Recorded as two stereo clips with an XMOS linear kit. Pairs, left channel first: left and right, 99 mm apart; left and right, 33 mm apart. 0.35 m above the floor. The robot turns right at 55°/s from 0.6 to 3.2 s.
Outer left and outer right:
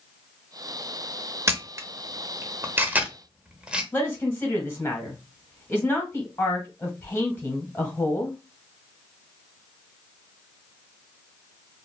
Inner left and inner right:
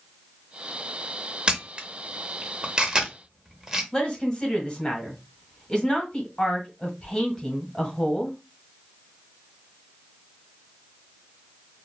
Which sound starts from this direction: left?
A man speaking, at 3.9 s.